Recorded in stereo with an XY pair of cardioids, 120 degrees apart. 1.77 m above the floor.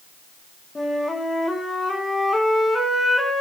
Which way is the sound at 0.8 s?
20° left.